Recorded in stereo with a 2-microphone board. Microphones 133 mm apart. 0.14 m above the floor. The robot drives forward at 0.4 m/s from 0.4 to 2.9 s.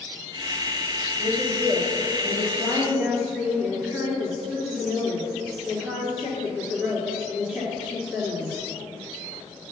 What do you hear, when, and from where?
1.2 s a woman speaking: 10° right (ahead or behind), 2.5 m